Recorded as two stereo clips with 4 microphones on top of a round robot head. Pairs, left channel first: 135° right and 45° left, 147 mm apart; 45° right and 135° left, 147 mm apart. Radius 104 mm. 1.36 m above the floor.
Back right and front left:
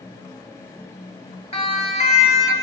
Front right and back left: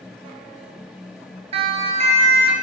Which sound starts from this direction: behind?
A siren, at 1.5 s.